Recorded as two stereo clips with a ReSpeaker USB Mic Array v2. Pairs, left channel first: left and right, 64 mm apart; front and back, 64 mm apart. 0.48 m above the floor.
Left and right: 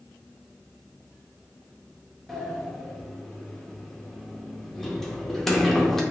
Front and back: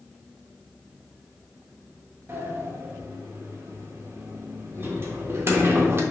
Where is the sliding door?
170° left, 0.6 m.